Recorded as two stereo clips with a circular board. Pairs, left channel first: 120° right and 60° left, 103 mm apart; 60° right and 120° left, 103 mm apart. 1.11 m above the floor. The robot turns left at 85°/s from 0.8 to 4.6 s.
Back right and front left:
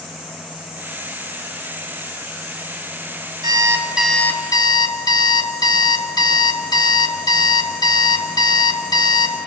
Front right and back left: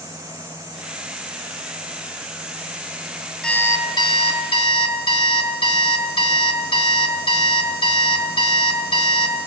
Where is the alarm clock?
20° left, 2.0 m; by 9.5 s 80° right, 2.0 m.